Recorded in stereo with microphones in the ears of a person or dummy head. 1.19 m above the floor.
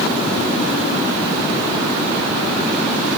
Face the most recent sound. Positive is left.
No sound to turn to.